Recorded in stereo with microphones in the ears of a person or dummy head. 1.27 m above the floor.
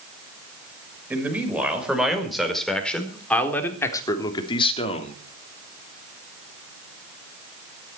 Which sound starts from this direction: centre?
A man speaking, at 1.1 s.